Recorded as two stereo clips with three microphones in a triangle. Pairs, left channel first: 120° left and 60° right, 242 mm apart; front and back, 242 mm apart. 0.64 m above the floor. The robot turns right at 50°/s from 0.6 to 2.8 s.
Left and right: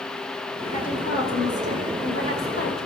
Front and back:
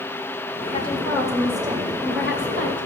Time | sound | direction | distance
0.7 | a woman speaking | 60° left | 2.5 m